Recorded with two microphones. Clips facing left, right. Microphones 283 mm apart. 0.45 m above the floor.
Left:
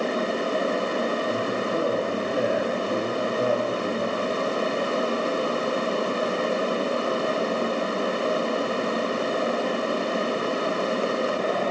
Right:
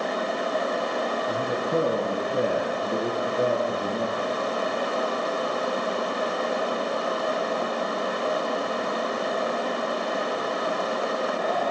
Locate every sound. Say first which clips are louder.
1.3 s a man speaking: even; 50° right (ahead or behind), 8 m